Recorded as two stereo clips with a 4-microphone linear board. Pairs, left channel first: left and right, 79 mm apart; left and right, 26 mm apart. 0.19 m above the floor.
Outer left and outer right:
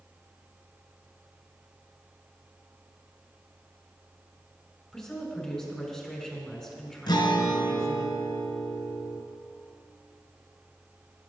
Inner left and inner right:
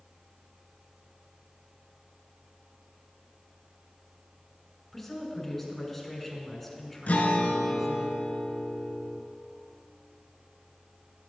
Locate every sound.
4.9 s a woman speaking: centre (ahead or behind), 2 m
7.1 s a guitar: 65° left (ahead or behind), 1.0 m